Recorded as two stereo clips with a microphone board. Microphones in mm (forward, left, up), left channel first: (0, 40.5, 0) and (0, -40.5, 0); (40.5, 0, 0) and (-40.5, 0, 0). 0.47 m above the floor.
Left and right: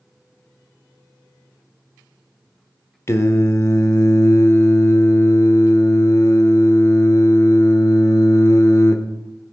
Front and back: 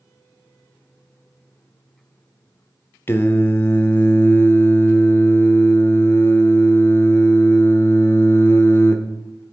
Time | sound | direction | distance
3.1 | singing | 50° left | 0.6 m